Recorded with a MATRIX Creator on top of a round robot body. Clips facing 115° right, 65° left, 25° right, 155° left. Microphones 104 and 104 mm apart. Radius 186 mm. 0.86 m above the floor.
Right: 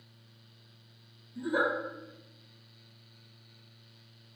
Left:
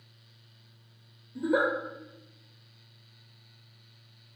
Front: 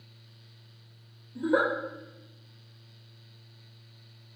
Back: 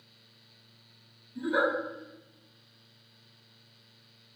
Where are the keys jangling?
I don't hear keys jangling.